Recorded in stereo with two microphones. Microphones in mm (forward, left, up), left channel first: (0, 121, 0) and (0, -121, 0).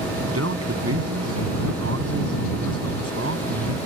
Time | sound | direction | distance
0.3 | a man speaking | 70° right (ahead or behind) | ?